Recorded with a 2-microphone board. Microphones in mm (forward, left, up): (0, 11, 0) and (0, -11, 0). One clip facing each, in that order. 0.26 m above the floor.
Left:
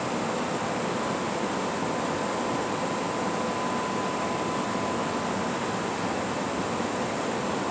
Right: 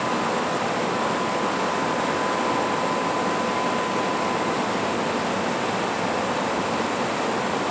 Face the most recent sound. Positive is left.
No sound to turn to.